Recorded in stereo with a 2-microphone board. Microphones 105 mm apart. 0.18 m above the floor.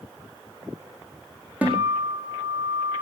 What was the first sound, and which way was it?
A guitar, 15° right (ahead or behind).